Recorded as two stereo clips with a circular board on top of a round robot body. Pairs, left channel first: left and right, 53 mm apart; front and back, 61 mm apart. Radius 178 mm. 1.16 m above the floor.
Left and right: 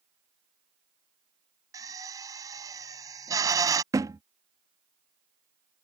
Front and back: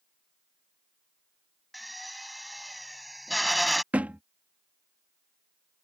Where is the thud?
110° right.